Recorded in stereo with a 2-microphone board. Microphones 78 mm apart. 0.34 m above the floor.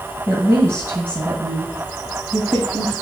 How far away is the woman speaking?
About 2.0 m.